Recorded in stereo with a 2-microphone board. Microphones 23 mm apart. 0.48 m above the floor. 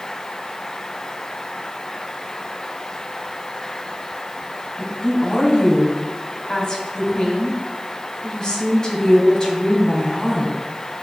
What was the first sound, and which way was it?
A woman speaking, 30° left (ahead or behind).